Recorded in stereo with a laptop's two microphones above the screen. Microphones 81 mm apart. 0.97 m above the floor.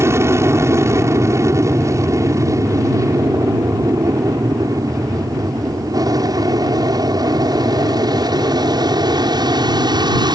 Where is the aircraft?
30° right (ahead or behind); by 10.4 s 55° right (ahead or behind).